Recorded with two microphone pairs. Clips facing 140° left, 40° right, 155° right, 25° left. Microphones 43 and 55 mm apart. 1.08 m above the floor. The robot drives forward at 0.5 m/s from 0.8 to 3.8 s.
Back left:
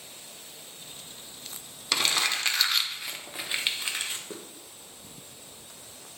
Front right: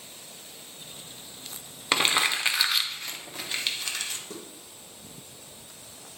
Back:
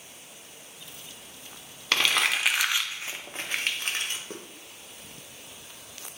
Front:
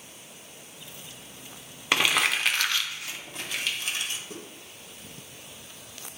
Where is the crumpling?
30° right, 0.7 m; by 4.4 s 165° right, 0.9 m.